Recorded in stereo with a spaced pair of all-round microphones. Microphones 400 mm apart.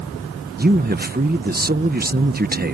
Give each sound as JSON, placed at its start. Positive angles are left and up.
{"t": 0.6, "sound": "a man speaking", "side_deg": -25}